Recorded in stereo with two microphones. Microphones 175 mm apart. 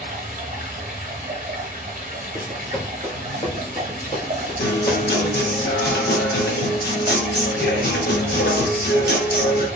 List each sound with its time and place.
0.0 s running water: 50° right (ahead or behind), 0.7 m
2.4 s running footsteps: 15° right (ahead or behind), 0.7 m; by 5.6 s 60° left (ahead or behind), 1.9 m
4.6 s a guitar: 75° left (ahead or behind), 0.8 m